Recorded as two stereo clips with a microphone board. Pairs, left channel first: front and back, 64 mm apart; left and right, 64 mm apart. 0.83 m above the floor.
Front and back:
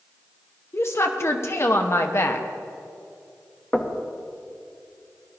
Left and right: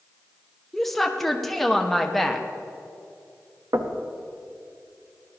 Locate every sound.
0.7 s a woman speaking: 5° left, 0.9 m
3.7 s knocking: 70° right, 0.8 m